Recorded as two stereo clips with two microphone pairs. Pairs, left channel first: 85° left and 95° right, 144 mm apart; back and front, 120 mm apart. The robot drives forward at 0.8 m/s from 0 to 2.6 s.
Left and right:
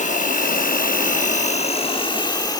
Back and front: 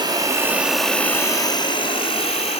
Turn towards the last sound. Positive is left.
turn(degrees=150)